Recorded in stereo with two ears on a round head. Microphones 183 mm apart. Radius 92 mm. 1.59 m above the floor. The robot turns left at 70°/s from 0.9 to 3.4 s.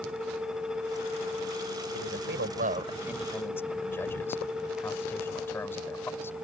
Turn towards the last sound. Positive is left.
turn(degrees=10)  # may be behind; listen again after turning